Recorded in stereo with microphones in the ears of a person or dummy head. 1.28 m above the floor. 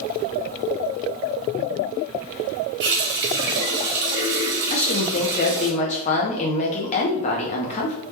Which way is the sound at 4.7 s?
35° left (ahead or behind).